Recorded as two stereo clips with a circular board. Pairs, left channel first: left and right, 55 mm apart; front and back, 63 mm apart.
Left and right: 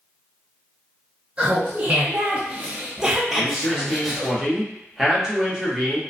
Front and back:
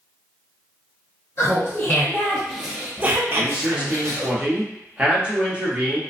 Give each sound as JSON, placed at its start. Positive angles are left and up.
{"t": 1.4, "sound": "laughter", "azimuth_deg": -30, "distance_m": 0.8}
{"t": 3.3, "sound": "a man speaking", "azimuth_deg": -150, "distance_m": 0.8}